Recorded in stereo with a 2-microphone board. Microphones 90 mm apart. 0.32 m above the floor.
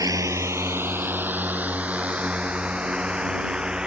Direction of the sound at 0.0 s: 40° right (ahead or behind).